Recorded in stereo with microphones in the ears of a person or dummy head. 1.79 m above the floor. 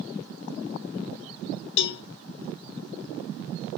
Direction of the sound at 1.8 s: 65° left (ahead or behind).